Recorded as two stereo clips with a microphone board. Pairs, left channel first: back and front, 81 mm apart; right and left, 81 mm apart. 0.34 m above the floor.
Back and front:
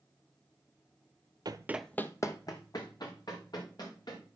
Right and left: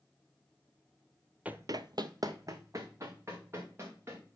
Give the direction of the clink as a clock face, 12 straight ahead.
I don't hear a clink.